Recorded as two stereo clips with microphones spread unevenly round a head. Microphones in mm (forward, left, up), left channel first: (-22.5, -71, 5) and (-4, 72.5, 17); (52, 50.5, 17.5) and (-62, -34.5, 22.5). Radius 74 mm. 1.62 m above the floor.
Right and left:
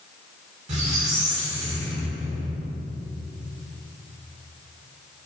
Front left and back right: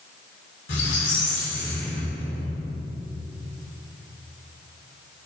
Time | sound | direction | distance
0.7 | a squeak | 40° left | 2.5 m